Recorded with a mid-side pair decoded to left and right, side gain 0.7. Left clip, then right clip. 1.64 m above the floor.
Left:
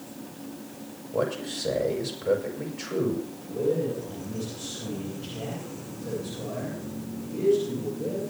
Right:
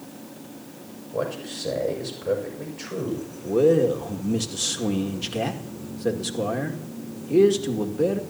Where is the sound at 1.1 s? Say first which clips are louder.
Left 1 dB; 5° left, 5.5 m.